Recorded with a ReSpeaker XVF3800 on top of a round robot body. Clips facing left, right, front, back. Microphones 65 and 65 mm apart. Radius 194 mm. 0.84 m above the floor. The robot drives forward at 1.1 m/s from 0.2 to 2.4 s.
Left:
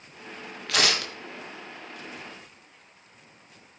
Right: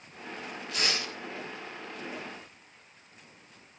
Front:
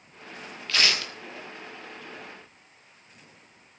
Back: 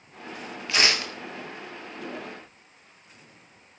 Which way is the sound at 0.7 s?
105° left.